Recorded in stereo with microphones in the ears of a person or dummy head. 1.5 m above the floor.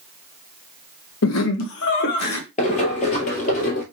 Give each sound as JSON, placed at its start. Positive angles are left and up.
{"t": 1.2, "sound": "laughter", "side_deg": 75, "distance_m": 1.2}
{"t": 2.6, "sound": "running footsteps", "side_deg": 35, "distance_m": 1.7}